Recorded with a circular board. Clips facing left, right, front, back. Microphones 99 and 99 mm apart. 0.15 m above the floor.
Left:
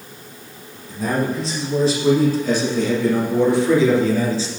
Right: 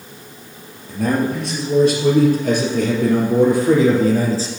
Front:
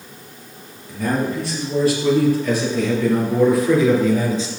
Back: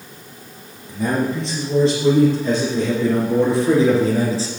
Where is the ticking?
I don't hear ticking.